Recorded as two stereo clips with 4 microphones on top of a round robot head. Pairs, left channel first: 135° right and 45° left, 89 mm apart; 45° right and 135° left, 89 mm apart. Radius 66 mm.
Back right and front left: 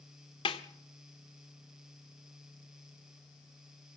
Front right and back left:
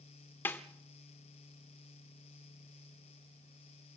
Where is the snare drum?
110° right, 1.0 m.